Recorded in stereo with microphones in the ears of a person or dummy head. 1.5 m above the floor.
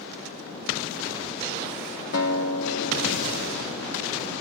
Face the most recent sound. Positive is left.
turn(degrees=65)  # may be behind; listen again after turning